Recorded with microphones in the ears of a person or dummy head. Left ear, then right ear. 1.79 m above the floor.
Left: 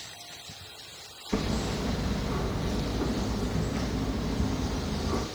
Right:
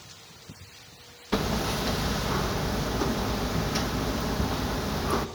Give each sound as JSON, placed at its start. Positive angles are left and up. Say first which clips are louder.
{"t": 1.3, "sound": "hammering", "louder": "right 4 dB", "side_deg": -65, "distance_m": 1.7}